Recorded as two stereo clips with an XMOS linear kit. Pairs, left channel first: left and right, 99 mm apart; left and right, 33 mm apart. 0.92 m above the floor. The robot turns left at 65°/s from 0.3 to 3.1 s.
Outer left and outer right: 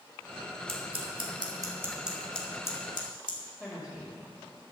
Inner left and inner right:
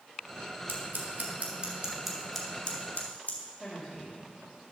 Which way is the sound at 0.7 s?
70° right (ahead or behind).